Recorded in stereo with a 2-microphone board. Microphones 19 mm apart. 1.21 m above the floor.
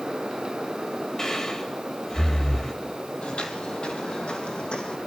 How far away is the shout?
I don't hear a shout.